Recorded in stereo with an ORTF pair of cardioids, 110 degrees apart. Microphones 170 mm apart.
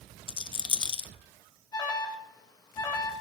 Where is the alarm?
25° left, 2 m.